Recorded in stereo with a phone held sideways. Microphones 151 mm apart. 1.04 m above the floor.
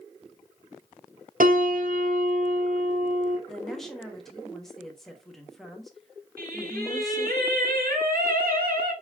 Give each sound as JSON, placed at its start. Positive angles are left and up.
{"t": 1.4, "sound": "a piano", "side_deg": -65, "distance_m": 1.1}
{"t": 3.5, "sound": "a woman speaking", "side_deg": 5, "distance_m": 1.4}
{"t": 6.4, "sound": "singing", "side_deg": -85, "distance_m": 3.0}